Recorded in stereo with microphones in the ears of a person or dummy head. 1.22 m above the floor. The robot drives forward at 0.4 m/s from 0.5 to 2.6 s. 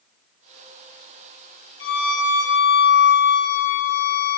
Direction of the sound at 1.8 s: 65° left (ahead or behind).